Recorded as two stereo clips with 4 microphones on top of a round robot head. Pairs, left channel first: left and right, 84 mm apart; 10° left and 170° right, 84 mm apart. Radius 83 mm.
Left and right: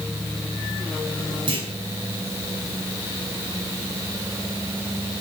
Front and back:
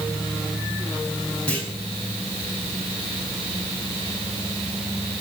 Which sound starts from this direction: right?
A clunk, at 1.5 s.